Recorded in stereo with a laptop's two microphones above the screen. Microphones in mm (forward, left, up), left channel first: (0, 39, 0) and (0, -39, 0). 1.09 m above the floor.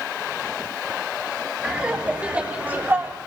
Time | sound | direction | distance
1.6 | laughter | 10° right (ahead or behind) | 3 m